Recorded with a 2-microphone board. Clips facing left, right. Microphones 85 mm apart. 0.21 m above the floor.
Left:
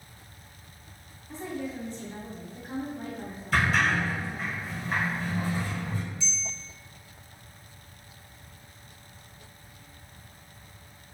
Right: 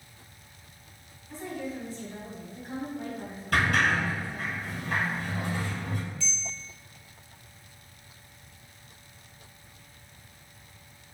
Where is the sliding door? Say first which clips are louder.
Even; 60° right (ahead or behind), 1.2 m.